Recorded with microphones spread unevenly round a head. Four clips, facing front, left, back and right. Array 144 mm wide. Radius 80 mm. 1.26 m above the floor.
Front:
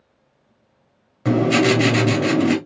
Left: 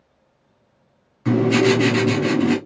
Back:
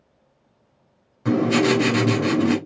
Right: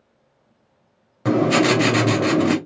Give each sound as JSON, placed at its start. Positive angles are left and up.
{"t": 1.2, "sound": "writing", "azimuth_deg": -60, "distance_m": 2.5}